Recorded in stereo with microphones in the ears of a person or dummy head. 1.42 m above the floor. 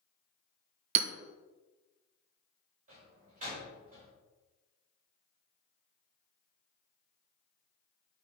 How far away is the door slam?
About 4.5 m.